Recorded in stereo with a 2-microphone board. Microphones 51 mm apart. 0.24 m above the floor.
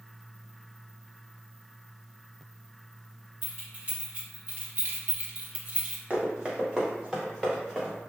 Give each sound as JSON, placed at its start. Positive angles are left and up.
{"t": 3.4, "sound": "keys jangling", "side_deg": -25, "distance_m": 1.8}
{"t": 6.1, "sound": "running footsteps", "side_deg": -25, "distance_m": 1.8}